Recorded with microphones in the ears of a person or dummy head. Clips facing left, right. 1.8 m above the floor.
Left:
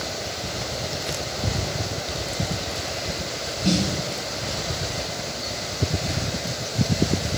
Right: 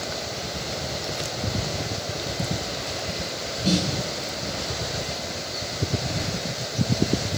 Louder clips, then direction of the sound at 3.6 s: Left 1 dB; 15° left (ahead or behind).